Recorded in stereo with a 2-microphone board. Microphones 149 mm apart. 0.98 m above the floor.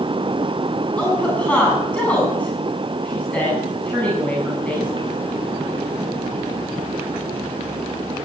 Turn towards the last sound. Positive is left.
turn(degrees=10)  # may be behind; listen again after turning